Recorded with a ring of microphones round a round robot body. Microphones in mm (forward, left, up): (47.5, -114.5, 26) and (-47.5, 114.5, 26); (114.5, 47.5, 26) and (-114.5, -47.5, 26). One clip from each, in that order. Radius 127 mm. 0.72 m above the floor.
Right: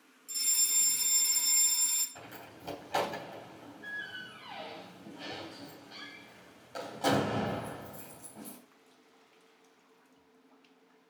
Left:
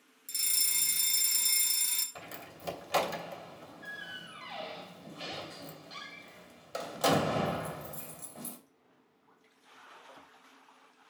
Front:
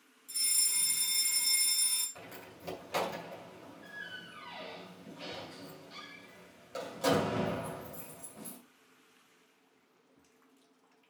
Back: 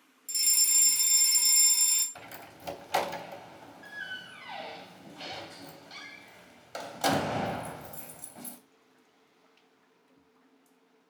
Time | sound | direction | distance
0.3 | a fire alarm | 155° left | 2.5 m
2.1 | a door slam | 135° left | 3 m